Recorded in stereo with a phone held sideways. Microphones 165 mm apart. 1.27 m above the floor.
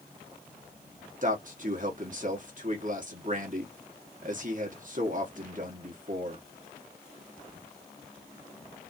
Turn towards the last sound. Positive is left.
turn(degrees=-55)  # may be behind; listen again after turning